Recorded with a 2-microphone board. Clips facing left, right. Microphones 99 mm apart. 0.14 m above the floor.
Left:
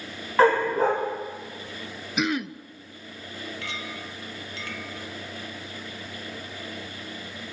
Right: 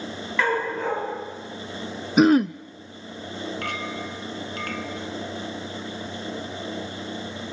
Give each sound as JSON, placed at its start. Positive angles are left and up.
{"t": 0.4, "sound": "a dog barking", "side_deg": 40, "distance_m": 8.5}
{"t": 2.2, "sound": "throat clearing", "side_deg": -40, "distance_m": 0.5}
{"t": 3.6, "sound": "a clink", "side_deg": -55, "distance_m": 1.9}